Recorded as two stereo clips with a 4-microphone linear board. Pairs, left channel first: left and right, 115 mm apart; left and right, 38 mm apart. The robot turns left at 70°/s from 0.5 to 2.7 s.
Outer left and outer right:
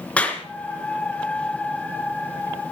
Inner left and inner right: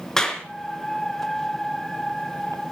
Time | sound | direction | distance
0.2 | a clap | 10° left (ahead or behind) | 3.5 m